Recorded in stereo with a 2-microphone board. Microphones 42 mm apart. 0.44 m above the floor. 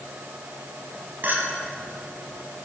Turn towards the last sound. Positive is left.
turn(degrees=-50)  # may be behind; listen again after turning